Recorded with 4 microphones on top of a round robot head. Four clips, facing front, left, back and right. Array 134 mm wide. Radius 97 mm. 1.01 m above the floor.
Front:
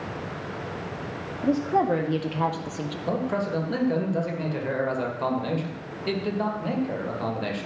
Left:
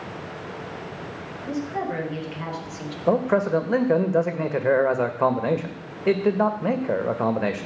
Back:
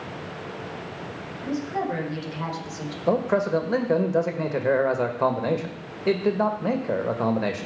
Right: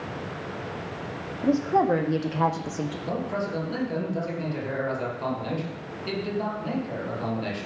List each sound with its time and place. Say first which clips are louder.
1.4 s a woman speaking: right 7 dB, front 5 dB; 50° right, 2.0 m; by 3.0 s 70° right, 1.2 m
3.1 s a man speaking: left 12 dB, back 6 dB; 120° left, 1.8 m